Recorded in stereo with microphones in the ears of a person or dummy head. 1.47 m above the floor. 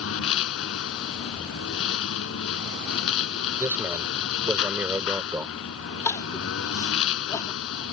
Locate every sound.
0.0 s a lawn mower: 75° left (ahead or behind)
3.6 s a man speaking: 10° right (ahead or behind)
6.0 s crying: 20° left (ahead or behind)